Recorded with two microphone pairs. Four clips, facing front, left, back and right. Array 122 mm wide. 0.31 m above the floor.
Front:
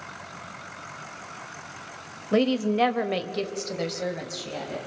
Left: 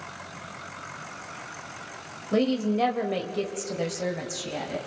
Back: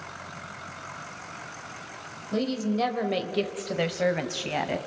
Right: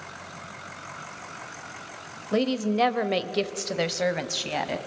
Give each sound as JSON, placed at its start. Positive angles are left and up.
{"t": 2.3, "sound": "a woman speaking", "azimuth_deg": -20, "distance_m": 1.2}